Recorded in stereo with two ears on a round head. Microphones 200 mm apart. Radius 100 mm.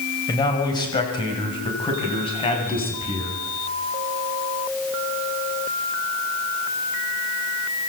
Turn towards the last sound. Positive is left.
turn(degrees=25)  # may be behind; listen again after turning